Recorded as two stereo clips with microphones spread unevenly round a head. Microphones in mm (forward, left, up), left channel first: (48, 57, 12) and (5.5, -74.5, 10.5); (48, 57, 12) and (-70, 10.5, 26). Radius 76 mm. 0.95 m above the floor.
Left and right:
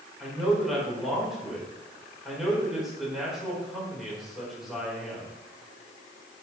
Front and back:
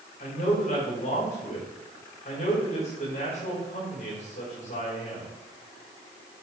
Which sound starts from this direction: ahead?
A man speaking, at 0.2 s.